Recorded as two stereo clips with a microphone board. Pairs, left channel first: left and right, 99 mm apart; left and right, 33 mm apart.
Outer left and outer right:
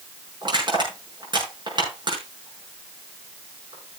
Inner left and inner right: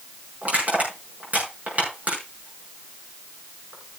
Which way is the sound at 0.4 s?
50° right (ahead or behind).